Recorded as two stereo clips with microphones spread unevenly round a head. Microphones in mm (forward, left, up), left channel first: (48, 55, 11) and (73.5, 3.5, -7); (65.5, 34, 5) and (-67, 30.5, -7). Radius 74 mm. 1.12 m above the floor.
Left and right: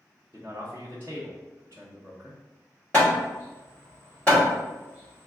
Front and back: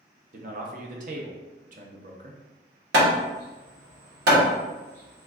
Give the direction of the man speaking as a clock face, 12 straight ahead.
5 o'clock.